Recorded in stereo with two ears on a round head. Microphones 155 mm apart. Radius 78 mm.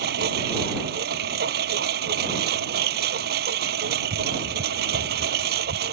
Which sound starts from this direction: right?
A lawn mower, at 0.0 s.